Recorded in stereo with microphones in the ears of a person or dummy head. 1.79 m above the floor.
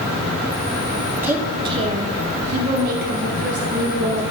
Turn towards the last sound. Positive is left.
turn(degrees=-60)  # may be behind; listen again after turning